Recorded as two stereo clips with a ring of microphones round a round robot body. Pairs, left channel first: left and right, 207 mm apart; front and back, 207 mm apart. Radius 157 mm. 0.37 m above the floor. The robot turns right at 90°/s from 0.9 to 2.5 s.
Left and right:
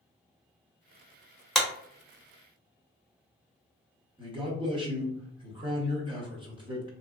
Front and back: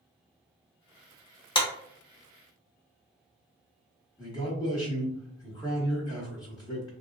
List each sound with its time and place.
1.6 s a clap: straight ahead, 0.8 m; by 1.7 s 15° left, 0.8 m
4.2 s a man speaking: 50° right, 1.0 m